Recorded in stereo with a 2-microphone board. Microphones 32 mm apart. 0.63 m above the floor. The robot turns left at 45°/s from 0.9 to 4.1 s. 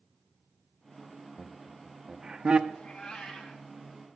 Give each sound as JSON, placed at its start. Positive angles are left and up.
{"t": 1.4, "sound": "laughter", "side_deg": 0, "distance_m": 0.6}
{"t": 2.7, "sound": "a cat meowing", "azimuth_deg": 35, "distance_m": 1.5}